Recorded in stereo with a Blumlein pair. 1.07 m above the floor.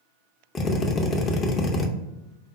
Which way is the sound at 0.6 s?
20° left.